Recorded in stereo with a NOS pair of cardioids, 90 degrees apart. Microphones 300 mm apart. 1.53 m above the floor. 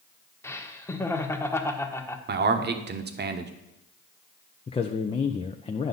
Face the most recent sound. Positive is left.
turn(degrees=20)